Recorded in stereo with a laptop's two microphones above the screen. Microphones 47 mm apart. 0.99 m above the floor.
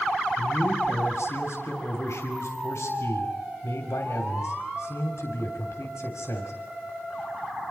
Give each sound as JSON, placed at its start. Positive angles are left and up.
{"t": 0.4, "sound": "a man speaking", "side_deg": 60, "distance_m": 3.0}